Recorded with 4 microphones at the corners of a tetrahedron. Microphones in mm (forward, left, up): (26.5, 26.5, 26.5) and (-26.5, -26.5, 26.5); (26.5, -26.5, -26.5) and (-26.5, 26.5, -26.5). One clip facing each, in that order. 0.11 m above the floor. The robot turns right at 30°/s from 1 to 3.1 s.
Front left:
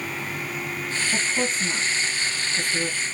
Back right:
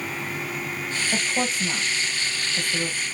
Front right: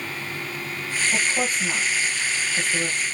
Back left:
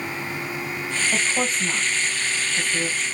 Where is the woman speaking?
150° right, 3 m; by 3.0 s 95° right, 3 m.